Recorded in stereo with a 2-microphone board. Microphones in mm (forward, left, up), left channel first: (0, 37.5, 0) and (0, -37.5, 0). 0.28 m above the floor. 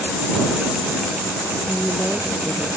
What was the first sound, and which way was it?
A woman speaking, 5° right (ahead or behind).